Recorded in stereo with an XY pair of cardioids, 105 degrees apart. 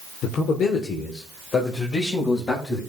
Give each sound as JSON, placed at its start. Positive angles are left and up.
{"t": 0.2, "sound": "a man speaking", "azimuth_deg": 70, "distance_m": 1.7}